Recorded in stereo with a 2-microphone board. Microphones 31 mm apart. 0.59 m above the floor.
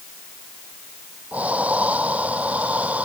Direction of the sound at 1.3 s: 45° right (ahead or behind).